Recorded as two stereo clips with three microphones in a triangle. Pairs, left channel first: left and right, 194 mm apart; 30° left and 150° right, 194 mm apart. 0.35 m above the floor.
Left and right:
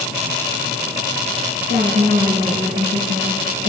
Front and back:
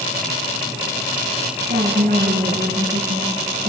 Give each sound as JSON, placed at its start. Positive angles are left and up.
{"t": 1.7, "sound": "a woman speaking", "azimuth_deg": -115, "distance_m": 3.5}